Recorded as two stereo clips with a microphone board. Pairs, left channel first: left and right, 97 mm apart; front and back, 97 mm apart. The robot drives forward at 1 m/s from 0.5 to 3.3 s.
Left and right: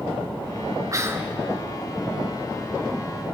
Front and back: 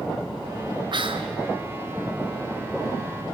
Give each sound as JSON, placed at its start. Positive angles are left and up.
{"t": 0.9, "sound": "whispering", "azimuth_deg": -145, "distance_m": 0.5}